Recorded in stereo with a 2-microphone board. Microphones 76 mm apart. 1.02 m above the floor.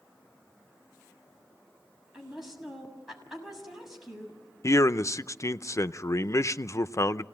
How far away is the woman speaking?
About 7 m.